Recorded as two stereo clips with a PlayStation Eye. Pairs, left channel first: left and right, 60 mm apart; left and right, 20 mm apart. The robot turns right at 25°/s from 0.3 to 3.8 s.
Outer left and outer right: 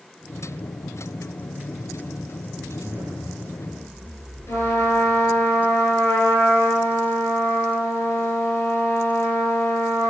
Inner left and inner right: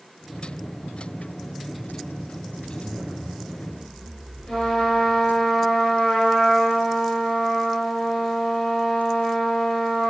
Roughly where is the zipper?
Right.